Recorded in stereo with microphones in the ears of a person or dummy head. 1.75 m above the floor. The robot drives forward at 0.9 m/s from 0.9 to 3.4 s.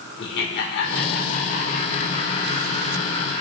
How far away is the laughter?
About 1.5 m.